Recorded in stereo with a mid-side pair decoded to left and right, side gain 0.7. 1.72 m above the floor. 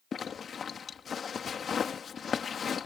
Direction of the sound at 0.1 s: 30° left.